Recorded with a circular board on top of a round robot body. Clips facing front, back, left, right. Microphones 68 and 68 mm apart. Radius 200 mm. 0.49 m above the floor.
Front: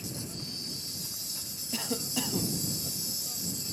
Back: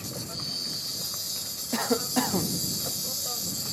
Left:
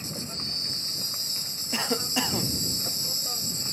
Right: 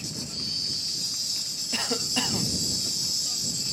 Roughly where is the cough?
Behind.